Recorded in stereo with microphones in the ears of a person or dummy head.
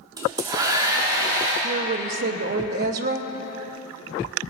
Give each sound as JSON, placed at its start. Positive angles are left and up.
{"t": 0.2, "sound": "a hair dryer", "side_deg": -25, "distance_m": 3.5}
{"t": 1.6, "sound": "a woman speaking", "side_deg": -60, "distance_m": 0.9}